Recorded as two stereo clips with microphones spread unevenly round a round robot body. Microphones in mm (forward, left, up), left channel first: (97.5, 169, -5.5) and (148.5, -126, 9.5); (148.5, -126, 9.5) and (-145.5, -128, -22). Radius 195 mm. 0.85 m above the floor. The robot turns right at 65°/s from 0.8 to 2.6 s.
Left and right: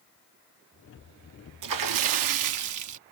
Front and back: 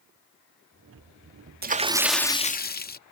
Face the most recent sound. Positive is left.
turn(degrees=-60)